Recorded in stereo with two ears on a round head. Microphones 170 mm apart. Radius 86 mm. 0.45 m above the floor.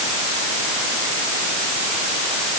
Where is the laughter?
I don't hear laughter.